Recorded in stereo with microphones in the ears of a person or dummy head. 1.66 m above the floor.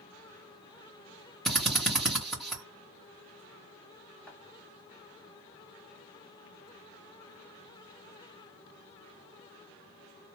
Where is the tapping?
5° left (ahead or behind), 1.8 m.